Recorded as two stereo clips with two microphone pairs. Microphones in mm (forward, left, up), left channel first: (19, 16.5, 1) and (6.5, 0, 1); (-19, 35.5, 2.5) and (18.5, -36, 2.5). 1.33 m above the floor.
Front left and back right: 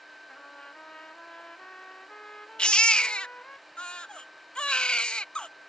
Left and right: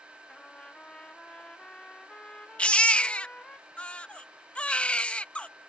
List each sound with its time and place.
0.3 s a trumpet: 45° left
2.6 s a baby crying: 45° left